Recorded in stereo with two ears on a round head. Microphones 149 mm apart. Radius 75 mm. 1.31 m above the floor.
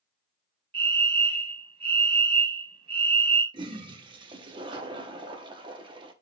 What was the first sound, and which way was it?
A fire alarm, 30° right (ahead or behind).